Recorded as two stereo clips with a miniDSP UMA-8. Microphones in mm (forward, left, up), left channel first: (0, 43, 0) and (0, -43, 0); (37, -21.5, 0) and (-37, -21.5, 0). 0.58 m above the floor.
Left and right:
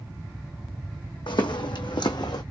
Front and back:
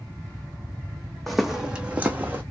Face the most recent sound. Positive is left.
turn(degrees=120)